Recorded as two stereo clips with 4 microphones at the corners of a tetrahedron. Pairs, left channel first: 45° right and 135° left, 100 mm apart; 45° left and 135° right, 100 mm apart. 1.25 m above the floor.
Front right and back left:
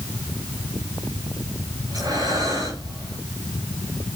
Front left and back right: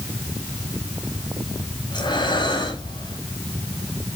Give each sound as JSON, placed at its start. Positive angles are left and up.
{"t": 1.9, "sound": "breathing", "azimuth_deg": 85, "distance_m": 8.0}